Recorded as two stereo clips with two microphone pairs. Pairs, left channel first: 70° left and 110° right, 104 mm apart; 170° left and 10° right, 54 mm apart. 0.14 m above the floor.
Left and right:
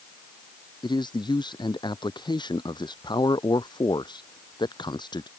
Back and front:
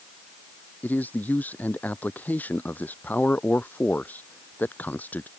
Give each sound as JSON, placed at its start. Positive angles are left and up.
{"t": 0.8, "sound": "a man speaking", "azimuth_deg": 110}